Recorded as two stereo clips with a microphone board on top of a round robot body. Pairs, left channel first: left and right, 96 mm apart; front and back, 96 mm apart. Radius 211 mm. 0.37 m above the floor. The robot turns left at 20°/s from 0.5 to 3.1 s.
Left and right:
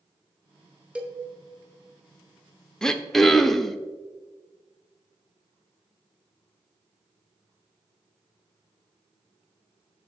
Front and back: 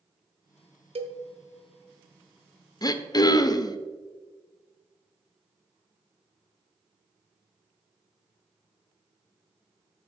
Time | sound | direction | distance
0.9 | a cowbell | 170° right | 0.6 m
2.8 | throat clearing | 10° left | 0.7 m